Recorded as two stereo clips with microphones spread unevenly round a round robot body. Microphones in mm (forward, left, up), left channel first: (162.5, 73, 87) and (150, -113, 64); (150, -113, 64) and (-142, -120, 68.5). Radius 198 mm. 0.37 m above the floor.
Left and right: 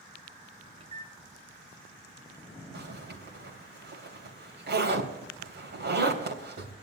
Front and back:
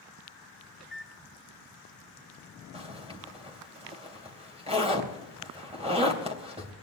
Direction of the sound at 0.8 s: 90° right.